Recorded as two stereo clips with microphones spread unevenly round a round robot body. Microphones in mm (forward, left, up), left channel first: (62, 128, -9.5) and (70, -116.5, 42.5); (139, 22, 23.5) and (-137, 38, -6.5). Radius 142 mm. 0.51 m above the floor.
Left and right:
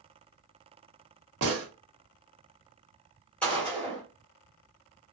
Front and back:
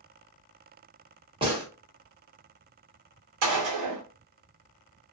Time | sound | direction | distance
1.4 | a gunshot | 125° right | 1.0 m
3.4 | a gunshot | 175° left | 1.1 m